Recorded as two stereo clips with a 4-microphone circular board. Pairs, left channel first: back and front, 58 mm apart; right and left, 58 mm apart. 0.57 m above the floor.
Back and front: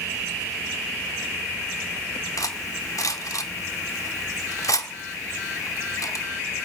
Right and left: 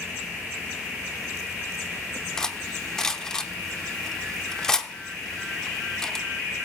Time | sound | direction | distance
2.4 | cutlery clinking | 170° right | 0.7 m